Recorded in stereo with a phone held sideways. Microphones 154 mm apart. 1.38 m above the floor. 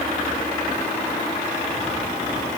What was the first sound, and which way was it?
Only background noise.